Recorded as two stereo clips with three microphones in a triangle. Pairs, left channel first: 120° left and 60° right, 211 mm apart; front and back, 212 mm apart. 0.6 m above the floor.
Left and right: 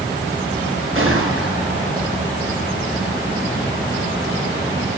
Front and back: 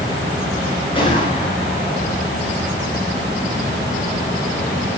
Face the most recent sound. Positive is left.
turn(degrees=-65)